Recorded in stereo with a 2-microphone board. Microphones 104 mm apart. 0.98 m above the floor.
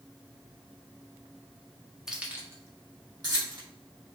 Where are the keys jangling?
5° right (ahead or behind), 0.8 m; by 3.6 s 45° right (ahead or behind), 1.6 m.